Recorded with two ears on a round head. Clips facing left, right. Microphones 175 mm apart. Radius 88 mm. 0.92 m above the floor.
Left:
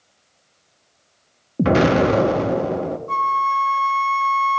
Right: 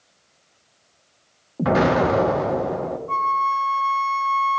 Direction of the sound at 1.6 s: 35° left (ahead or behind).